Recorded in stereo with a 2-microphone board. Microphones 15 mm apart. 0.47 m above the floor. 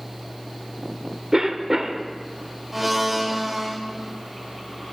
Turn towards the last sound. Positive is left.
turn(degrees=-15)  # may be behind; listen again after turning